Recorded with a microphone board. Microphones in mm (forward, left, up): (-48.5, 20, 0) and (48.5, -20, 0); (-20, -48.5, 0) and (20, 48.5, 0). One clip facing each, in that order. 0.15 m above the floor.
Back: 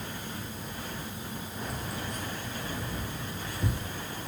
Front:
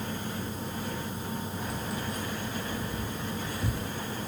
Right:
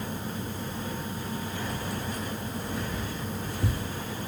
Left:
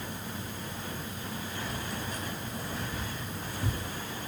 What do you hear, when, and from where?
1.6 s keys jangling: 160° right, 3.5 m; by 3.9 s 130° right, 2 m